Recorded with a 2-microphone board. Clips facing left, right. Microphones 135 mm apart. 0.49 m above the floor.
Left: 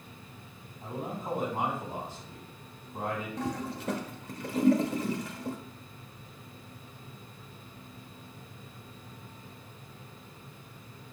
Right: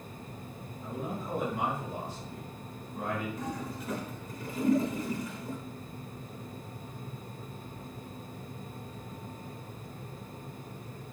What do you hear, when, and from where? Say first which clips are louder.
0.8 s a man speaking: left 1 dB; 50° left (ahead or behind), 3 m
3.4 s a toilet flushing: left 3 dB; 80° left, 0.6 m